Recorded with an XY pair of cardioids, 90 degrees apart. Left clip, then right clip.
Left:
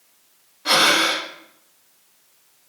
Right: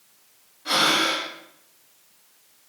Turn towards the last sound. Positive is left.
turn(degrees=65)